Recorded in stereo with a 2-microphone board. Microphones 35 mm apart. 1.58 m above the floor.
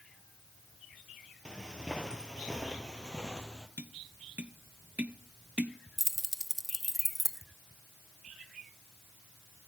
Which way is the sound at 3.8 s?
45° right (ahead or behind).